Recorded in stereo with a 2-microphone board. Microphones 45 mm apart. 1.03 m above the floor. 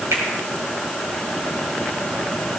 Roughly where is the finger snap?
Right.